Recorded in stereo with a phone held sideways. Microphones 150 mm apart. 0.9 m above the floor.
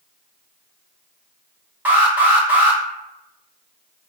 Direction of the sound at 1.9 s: 15° right (ahead or behind).